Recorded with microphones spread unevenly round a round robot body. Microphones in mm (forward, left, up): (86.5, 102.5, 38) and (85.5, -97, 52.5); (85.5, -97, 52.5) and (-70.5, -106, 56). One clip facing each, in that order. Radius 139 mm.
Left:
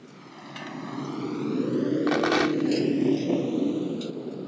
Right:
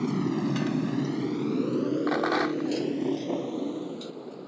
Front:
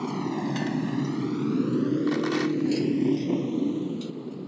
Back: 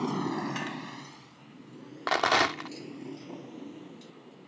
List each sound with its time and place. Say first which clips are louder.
0.0 s a motorcycle: right 19 dB, front 3 dB; 85° right; by 4.5 s 30° left
2.1 s a rattle: left 3 dB, front 4 dB; 150° left